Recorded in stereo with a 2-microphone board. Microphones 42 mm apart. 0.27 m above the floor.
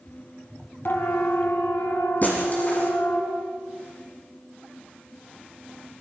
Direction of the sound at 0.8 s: 60° left (ahead or behind).